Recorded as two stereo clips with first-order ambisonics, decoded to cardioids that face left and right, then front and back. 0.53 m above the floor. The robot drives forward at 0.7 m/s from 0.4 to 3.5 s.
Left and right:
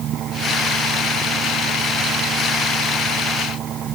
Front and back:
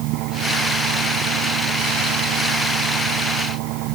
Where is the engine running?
145° right; by 4.0 s 150° right.